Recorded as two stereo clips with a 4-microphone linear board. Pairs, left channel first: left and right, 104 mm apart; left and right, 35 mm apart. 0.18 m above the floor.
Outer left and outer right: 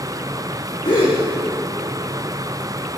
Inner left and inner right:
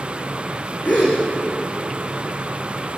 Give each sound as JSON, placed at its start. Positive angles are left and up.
{"t": 0.8, "sound": "a gasp", "side_deg": 55, "distance_m": 7.5}